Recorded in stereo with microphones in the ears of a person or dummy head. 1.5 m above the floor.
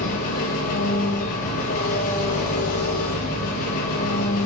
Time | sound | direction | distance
0.0 | an engine running | 50° left (ahead or behind) | 1.1 m